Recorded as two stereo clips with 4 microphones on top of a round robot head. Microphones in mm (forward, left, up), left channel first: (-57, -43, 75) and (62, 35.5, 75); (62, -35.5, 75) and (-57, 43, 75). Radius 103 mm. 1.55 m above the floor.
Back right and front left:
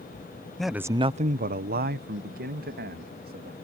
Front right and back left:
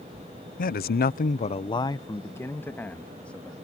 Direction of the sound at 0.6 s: 60° right.